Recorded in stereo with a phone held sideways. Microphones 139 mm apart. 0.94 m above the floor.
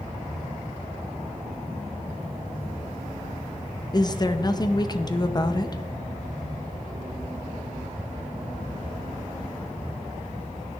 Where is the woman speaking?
30° left (ahead or behind), 0.7 m.